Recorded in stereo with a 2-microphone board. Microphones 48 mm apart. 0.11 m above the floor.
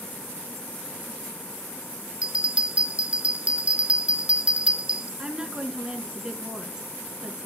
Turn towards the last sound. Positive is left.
turn(degrees=-15)  # may be behind; listen again after turning